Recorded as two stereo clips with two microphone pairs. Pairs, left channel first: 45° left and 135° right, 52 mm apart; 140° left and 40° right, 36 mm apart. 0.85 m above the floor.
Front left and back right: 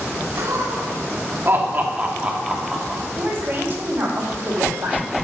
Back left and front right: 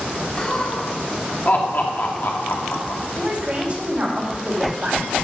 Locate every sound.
0.4 s laughter: 155° right, 1.8 m; by 3.0 s 140° left, 1.4 m
3.1 s a woman speaking: 95° right, 3.5 m